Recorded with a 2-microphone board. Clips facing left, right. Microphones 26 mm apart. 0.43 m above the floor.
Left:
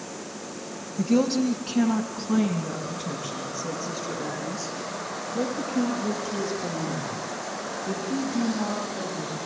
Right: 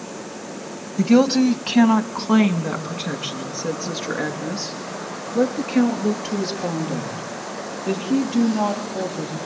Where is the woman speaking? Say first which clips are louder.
Right 7 dB; 50° right (ahead or behind), 1.8 m; by 9.4 s 65° right (ahead or behind), 9 m.